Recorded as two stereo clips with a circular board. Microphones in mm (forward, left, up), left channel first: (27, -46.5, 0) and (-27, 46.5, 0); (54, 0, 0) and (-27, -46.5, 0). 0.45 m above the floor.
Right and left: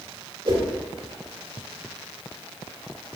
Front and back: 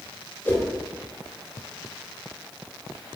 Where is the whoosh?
95° left, 1.8 m.